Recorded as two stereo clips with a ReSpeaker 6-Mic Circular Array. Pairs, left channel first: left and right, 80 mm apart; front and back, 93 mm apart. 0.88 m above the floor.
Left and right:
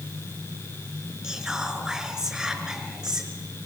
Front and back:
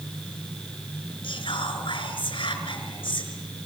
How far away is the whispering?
About 4.5 m.